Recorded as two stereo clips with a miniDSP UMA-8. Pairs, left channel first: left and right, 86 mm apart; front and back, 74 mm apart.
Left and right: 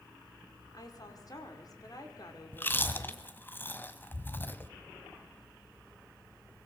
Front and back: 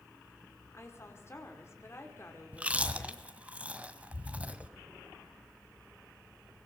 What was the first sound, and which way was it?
A woman speaking, 50° left.